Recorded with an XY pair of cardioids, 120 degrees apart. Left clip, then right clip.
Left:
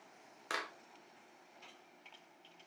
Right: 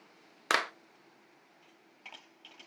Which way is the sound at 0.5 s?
65° right.